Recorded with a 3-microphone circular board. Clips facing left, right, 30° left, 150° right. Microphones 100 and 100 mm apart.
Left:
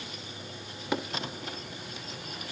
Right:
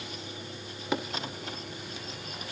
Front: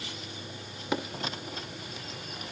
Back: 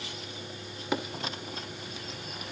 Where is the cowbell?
No cowbell in this recording.